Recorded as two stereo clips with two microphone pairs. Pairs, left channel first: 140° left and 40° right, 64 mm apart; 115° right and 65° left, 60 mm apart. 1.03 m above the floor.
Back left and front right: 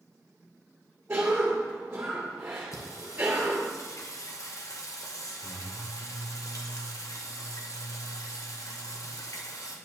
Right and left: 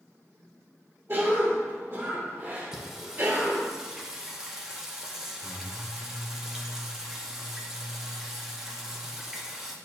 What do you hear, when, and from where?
1.1 s a cough: 15° left, 2 m
2.7 s singing: 145° left, 0.9 m